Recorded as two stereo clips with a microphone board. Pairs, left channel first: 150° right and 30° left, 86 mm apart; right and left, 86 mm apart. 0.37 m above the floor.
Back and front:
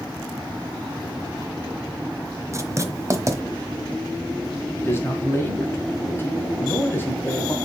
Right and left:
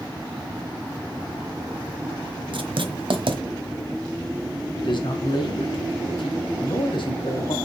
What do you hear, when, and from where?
2.5 s writing: 85° left, 1.2 m
4.8 s a man speaking: 90° right, 2.5 m